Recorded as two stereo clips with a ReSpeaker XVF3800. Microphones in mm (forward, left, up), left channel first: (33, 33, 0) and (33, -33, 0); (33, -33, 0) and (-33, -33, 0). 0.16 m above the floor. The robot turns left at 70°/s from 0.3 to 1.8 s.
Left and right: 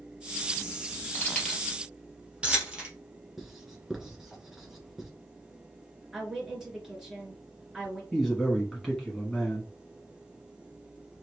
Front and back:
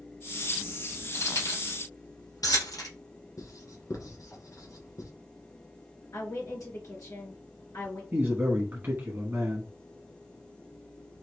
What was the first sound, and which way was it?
Keys jangling, 35° left.